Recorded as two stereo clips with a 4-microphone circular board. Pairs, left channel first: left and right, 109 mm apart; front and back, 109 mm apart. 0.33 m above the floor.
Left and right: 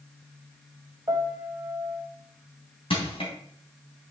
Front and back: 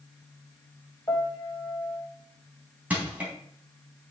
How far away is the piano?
About 1.6 m.